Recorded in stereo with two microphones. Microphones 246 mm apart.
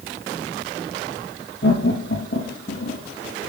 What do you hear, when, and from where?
1.6 s laughter: 50° left (ahead or behind), 3 m; by 3.0 s 55° left (ahead or behind), 2 m